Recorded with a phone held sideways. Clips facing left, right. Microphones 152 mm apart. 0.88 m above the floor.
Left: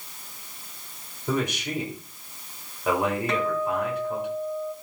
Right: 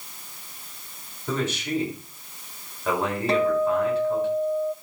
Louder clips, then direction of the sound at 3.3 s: Right 5 dB; 35° right (ahead or behind).